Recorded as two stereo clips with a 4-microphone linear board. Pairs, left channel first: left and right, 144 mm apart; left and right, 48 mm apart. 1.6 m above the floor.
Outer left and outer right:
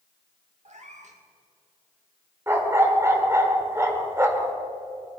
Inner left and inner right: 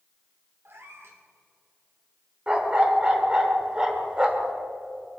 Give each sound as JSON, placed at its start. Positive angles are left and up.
{"t": 0.7, "sound": "a cat meowing", "side_deg": -55, "distance_m": 1.8}
{"t": 2.5, "sound": "a dog barking", "side_deg": -20, "distance_m": 1.4}